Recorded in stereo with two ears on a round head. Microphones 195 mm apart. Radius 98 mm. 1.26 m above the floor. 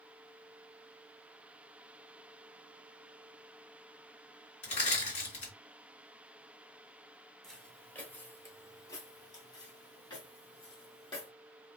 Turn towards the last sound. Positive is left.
turn(degrees=25)  # may be behind; listen again after turning